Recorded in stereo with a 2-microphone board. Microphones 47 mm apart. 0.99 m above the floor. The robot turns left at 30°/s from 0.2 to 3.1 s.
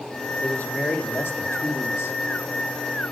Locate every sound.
0.4 s a man speaking: 150° left, 2.5 m; by 2.2 s 95° left, 2.5 m